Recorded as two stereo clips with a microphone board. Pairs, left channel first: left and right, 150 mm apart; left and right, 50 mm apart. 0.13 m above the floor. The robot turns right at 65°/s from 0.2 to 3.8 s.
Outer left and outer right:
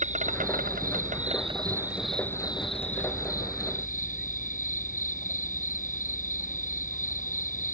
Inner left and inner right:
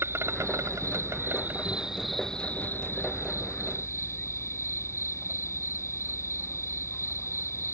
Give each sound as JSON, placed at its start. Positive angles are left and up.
{"t": 0.0, "sound": "an insect", "azimuth_deg": -120}